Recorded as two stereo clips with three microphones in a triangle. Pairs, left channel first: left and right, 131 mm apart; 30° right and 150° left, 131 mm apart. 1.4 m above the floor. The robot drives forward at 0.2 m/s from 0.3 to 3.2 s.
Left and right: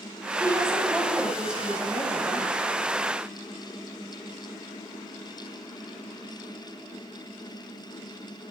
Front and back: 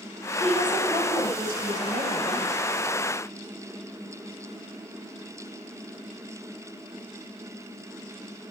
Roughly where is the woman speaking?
Behind.